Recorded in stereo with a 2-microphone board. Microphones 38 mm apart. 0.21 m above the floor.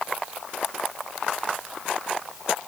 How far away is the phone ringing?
No phone ringing in this recording.